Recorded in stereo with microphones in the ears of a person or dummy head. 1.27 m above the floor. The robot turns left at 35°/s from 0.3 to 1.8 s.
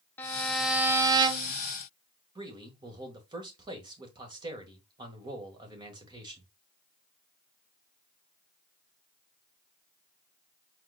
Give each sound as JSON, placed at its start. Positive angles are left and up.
{"t": 0.2, "sound": "a violin", "azimuth_deg": 10, "distance_m": 0.6}
{"t": 2.4, "sound": "a man speaking", "side_deg": -20, "distance_m": 1.6}